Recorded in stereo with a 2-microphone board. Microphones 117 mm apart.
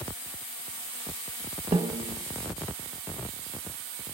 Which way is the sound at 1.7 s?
65° right (ahead or behind).